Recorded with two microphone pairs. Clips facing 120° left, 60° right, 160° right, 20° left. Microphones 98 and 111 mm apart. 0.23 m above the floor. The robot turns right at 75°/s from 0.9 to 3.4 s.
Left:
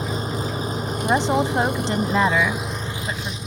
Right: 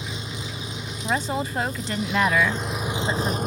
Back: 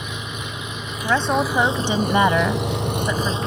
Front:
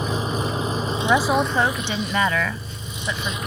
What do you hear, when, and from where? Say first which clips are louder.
0.0 s an engine running: left 8 dB, front 8 dB; 75° left; by 3.5 s 95° right
1.0 s a woman speaking: left 6 dB, even; 90° left; by 3.4 s 95° right